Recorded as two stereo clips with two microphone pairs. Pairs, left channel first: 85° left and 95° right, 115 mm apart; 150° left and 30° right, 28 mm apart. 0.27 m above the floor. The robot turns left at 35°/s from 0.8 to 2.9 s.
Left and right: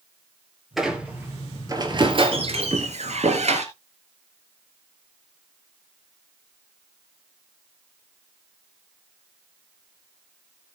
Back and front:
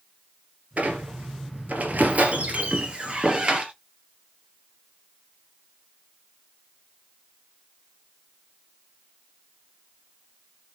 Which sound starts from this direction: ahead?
A squeak, at 0.8 s.